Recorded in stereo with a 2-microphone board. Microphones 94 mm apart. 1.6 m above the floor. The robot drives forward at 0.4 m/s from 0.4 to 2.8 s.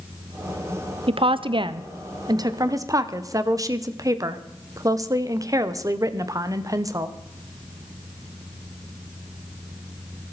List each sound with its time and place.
1.1 s a woman speaking: 75° right (ahead or behind), 0.7 m; by 7.2 s 35° right (ahead or behind), 1.1 m